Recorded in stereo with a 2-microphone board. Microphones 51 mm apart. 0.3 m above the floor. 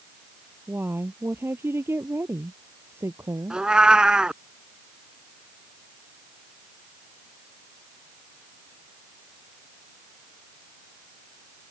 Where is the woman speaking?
45° right (ahead or behind); by 3.6 s 65° right (ahead or behind).